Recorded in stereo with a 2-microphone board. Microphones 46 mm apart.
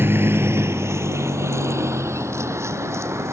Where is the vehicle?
55° right (ahead or behind); by 3.3 s 80° right.